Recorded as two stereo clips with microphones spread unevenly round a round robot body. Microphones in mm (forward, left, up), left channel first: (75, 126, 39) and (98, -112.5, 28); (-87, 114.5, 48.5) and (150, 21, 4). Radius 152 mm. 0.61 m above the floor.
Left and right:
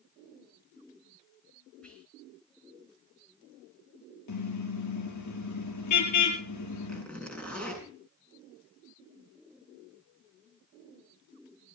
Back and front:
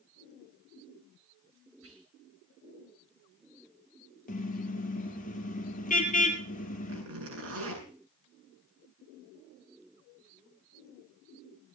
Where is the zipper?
10° left, 8 m.